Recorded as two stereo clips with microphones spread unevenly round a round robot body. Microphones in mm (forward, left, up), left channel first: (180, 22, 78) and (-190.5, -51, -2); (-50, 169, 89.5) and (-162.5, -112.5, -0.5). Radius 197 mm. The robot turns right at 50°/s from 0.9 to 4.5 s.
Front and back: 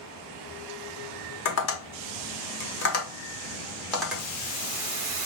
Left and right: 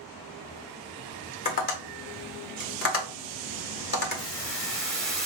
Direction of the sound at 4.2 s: 145° left.